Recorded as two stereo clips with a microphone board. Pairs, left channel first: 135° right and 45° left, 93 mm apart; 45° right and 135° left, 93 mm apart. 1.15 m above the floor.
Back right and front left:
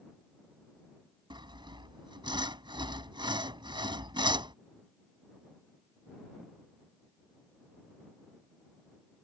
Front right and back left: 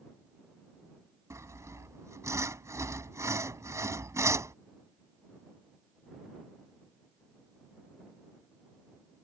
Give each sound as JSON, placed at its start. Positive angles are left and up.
{"t": 1.3, "sound": "sawing", "azimuth_deg": 75}